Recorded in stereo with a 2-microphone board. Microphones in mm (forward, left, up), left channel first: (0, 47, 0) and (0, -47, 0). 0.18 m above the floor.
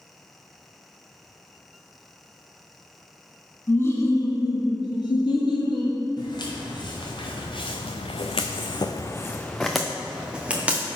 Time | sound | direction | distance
3.7 | laughter | 20° left (ahead or behind) | 1.0 m
6.2 | footsteps | 50° left (ahead or behind) | 2 m